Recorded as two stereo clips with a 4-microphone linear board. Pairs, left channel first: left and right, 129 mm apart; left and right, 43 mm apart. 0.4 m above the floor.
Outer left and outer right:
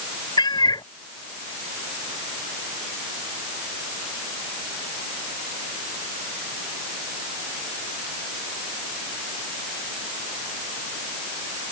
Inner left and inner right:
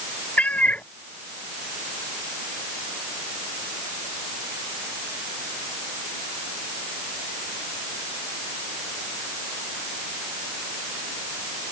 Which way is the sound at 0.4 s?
35° left (ahead or behind).